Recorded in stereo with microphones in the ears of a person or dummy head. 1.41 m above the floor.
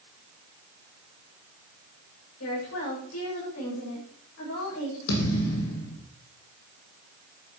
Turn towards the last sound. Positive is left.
turn(degrees=65)  # may be behind; listen again after turning